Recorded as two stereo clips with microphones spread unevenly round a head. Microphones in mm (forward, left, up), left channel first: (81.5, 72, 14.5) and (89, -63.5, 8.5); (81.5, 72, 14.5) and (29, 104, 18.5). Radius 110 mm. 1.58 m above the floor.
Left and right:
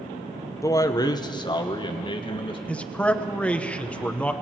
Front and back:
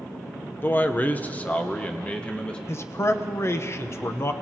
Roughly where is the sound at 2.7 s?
Ahead.